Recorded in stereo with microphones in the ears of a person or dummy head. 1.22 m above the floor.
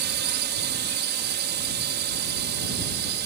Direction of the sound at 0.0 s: 55° right (ahead or behind).